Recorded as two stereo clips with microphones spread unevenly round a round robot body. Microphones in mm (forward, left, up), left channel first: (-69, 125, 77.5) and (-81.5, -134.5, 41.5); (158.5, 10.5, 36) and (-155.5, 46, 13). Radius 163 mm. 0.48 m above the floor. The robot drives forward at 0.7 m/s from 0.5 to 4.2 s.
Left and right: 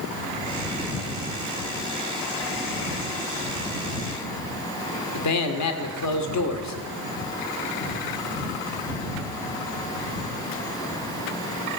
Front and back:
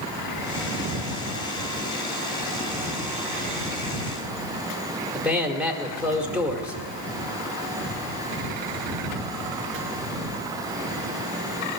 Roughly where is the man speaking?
Left.